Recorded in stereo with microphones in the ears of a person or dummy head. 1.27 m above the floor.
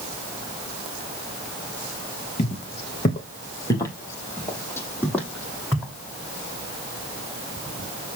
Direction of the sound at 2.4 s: 30° left (ahead or behind).